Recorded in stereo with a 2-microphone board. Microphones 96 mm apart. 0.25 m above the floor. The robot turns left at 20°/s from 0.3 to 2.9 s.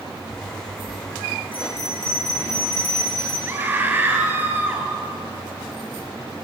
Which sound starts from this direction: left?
A bell, at 1.5 s.